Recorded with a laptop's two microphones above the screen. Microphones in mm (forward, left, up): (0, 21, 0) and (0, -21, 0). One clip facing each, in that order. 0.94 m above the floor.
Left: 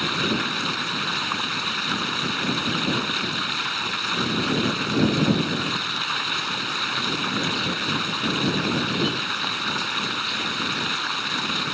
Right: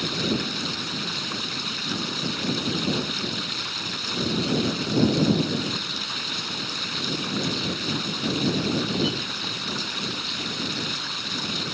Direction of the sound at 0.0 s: 40° left (ahead or behind).